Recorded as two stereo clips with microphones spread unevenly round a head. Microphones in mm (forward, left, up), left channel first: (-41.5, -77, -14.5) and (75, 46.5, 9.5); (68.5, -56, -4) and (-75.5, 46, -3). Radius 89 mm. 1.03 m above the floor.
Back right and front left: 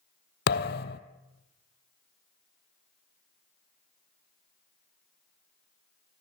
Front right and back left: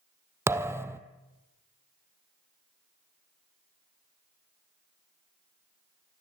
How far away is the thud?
About 1.5 m.